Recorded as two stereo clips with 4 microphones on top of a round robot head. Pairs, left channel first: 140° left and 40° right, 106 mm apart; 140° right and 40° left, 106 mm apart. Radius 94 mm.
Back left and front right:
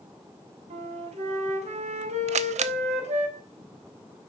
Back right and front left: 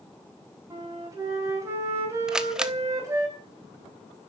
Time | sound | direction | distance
0.7 | a flute | 20° right | 5 m
2.3 | a camera shutter | 40° right | 1.1 m